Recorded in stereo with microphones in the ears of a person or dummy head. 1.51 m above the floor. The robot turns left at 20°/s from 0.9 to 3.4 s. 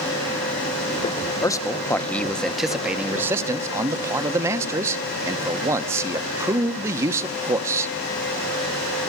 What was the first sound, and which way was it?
A man speaking, 15° left.